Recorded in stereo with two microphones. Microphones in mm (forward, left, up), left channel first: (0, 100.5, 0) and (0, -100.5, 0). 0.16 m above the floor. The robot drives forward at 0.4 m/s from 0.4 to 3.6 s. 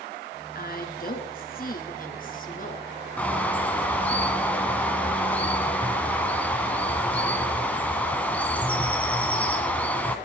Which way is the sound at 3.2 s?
5° left (ahead or behind).